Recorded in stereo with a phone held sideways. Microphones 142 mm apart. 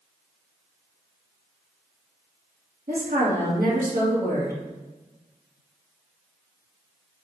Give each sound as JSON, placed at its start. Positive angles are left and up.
{"t": 2.9, "sound": "a woman speaking", "side_deg": -70, "distance_m": 1.7}